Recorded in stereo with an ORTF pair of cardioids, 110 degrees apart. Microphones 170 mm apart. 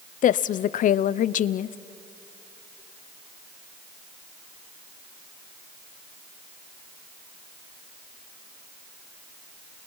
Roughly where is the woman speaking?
Ahead left.